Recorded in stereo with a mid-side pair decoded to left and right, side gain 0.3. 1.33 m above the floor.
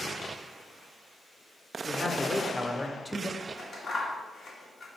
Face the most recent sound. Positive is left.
turn(degrees=65)